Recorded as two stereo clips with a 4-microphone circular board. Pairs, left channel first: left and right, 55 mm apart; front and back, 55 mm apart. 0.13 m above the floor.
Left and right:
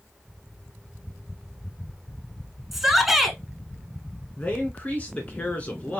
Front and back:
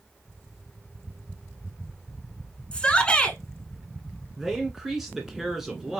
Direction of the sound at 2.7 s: 10° right.